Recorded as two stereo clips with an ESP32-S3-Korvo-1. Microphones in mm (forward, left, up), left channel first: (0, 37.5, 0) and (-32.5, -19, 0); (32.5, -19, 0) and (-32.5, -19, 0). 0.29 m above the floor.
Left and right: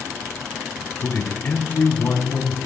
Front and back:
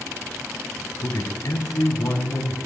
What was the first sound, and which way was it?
A man speaking, 10° left.